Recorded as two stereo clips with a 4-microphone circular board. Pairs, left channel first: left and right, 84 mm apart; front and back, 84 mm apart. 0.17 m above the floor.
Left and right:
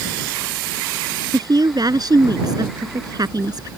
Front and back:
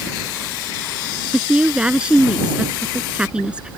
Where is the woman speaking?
105° right.